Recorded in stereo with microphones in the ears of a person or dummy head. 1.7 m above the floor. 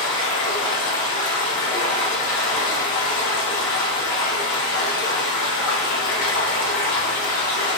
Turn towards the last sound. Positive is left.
turn(degrees=70)  # may be behind; listen again after turning